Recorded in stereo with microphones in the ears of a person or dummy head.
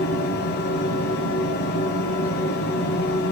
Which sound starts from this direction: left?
A fan, at 0.0 s.